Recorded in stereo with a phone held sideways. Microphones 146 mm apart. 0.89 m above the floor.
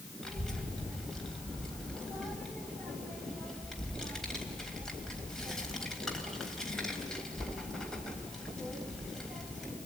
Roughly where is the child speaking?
Centre.